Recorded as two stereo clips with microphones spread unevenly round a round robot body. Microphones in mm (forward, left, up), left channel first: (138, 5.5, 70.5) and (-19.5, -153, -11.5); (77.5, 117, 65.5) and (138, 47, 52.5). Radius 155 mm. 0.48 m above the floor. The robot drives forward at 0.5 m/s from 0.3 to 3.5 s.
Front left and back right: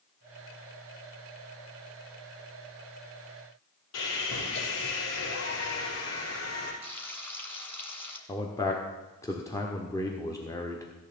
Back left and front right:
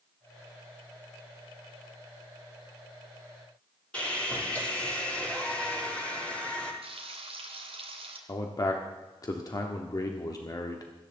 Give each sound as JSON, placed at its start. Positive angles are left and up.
{"t": 3.9, "sound": "sawing", "azimuth_deg": 55, "distance_m": 6.5}
{"t": 6.8, "sound": "frying", "azimuth_deg": -40, "distance_m": 3.0}
{"t": 8.3, "sound": "a man speaking", "azimuth_deg": 145, "distance_m": 1.2}